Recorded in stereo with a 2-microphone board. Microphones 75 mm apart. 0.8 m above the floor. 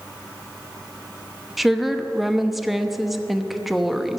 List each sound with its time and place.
1.6 s a woman speaking: 5° right (ahead or behind), 0.7 m